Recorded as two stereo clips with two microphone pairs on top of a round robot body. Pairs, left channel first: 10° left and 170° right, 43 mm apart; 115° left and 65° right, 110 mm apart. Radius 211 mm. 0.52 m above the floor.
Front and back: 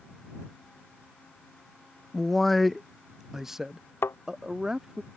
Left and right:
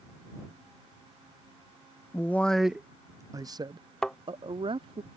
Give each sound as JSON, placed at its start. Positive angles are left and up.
{"t": 2.1, "sound": "a man speaking", "azimuth_deg": 80}
{"t": 4.0, "sound": "a thud", "azimuth_deg": 30}